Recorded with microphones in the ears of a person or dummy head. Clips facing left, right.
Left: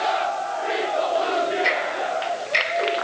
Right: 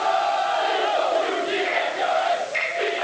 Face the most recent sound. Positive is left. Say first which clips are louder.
# right 1 dB
turn(degrees=85)